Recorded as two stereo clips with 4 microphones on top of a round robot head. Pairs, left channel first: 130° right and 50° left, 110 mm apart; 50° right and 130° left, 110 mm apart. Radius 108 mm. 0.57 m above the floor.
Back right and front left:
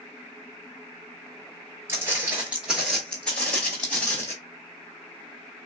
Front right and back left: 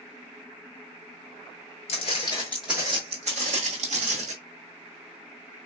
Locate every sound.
1.9 s footsteps: 20° right, 0.7 m; by 4.3 s 155° left, 1.2 m